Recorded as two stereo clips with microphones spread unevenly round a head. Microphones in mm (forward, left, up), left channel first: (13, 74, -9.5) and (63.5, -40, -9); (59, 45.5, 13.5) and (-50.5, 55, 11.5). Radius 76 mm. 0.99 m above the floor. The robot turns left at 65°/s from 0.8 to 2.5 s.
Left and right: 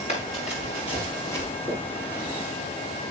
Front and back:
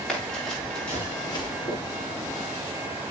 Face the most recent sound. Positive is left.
turn(degrees=-10)